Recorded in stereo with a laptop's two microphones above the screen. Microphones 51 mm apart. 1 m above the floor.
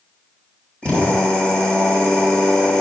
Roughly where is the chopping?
No chopping in this recording.